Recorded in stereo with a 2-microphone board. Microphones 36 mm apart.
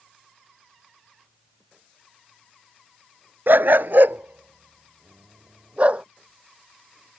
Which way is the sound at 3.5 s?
80° right.